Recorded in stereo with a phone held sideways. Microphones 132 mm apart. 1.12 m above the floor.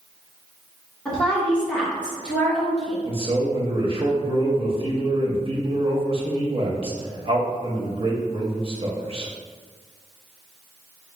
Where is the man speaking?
45° right (ahead or behind), 0.8 m.